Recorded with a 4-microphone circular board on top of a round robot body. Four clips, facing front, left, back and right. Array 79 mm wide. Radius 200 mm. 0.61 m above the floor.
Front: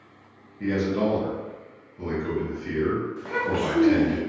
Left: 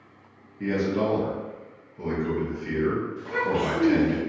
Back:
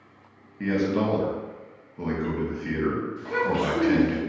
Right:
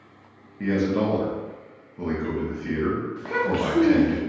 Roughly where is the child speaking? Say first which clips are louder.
Right 1 dB, back 1 dB; right.